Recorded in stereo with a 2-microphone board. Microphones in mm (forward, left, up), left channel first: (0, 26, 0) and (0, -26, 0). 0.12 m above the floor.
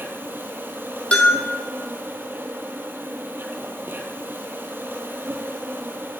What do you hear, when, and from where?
0.0 s an insect: 40° right (ahead or behind), 1.7 m
1.1 s a bell: 20° left (ahead or behind), 2.5 m